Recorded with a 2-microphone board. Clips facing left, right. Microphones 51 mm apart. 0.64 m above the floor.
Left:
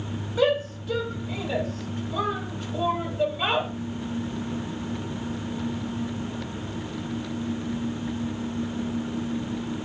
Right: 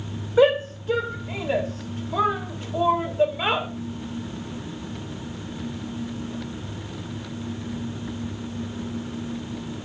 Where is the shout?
25° right (ahead or behind), 0.8 m; by 3.7 s 15° right (ahead or behind), 1.6 m.